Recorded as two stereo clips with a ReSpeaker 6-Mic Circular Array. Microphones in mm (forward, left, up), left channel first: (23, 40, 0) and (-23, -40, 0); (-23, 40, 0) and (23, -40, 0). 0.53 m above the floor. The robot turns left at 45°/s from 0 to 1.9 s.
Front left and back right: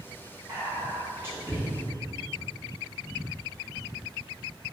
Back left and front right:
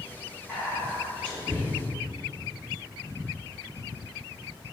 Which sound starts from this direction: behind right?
Whispering, at 0.5 s.